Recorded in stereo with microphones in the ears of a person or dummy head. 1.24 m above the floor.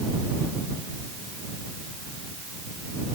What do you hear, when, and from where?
Only background noise.